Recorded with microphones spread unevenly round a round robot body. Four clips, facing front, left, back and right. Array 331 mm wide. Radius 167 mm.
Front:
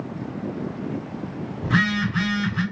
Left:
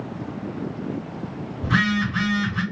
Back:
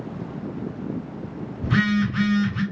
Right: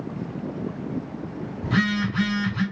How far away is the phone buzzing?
About 2.5 m.